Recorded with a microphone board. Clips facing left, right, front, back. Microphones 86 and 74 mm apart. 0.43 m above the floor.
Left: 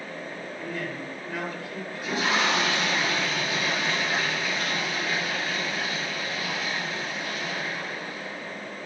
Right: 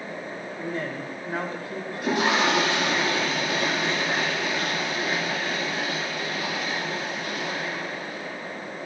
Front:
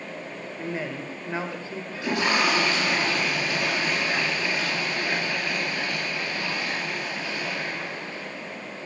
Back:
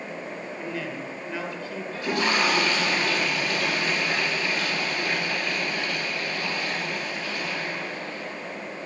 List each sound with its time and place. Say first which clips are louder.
0.6 s a man speaking: right 3 dB, front 3 dB; 50° right, 1.7 m
1.9 s a toilet flushing: right 4 dB, even; 80° right, 8 m